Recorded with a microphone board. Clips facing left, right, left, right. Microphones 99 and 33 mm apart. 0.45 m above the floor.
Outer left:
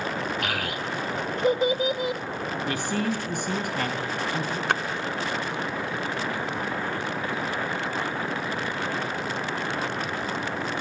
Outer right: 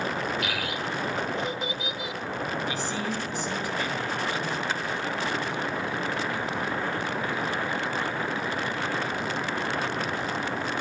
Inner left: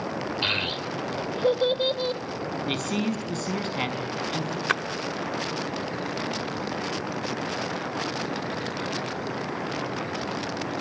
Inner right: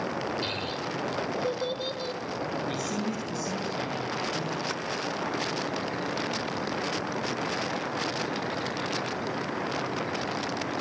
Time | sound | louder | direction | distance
0.4 | a child speaking | outer left 1 dB, inner left 5 dB | 50° left (ahead or behind) | 1.1 m
2.7 | a man speaking | outer left 3 dB, inner left 3 dB | 55° left (ahead or behind) | 4.5 m
4.7 | a splash | outer left 5 dB, inner left 8 dB | 60° left (ahead or behind) | 0.5 m